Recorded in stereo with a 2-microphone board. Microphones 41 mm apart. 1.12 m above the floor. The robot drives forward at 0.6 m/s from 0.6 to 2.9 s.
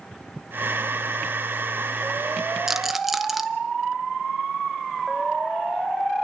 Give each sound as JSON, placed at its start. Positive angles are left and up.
{"t": 2.7, "sound": "a rattle", "side_deg": -10, "distance_m": 0.5}